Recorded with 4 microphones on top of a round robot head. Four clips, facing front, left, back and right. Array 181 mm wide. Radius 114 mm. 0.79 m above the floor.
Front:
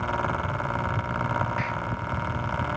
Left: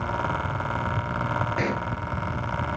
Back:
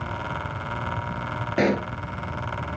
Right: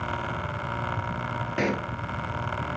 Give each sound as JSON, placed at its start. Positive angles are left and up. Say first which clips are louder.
{"t": 1.6, "sound": "a pop", "louder": "even, back 8 dB", "azimuth_deg": -170}